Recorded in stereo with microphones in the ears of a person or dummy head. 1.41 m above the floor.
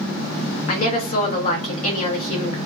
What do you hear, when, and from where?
0.7 s a woman speaking: 40° left (ahead or behind), 0.9 m